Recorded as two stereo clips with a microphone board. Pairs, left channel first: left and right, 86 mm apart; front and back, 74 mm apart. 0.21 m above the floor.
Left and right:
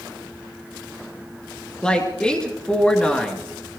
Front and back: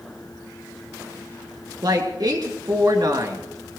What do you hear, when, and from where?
1.8 s a woman speaking: 170° left, 2.5 m